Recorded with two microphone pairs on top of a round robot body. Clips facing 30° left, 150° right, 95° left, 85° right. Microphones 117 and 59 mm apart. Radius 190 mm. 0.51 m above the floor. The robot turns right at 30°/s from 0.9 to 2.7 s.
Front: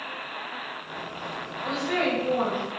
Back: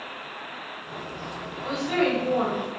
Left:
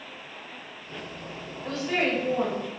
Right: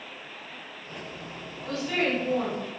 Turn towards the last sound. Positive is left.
turn(degrees=165)